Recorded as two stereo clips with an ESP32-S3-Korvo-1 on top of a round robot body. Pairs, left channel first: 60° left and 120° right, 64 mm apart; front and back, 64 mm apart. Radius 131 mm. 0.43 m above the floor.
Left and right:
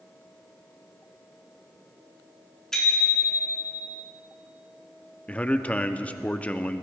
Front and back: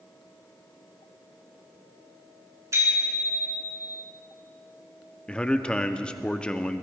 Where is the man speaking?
45° left, 0.9 m.